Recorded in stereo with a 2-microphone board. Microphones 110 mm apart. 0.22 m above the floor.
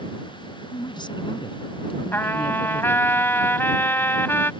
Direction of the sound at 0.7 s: 40° left (ahead or behind).